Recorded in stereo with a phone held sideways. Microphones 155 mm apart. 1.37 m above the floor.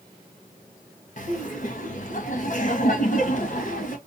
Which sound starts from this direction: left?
Laughter, at 1.2 s.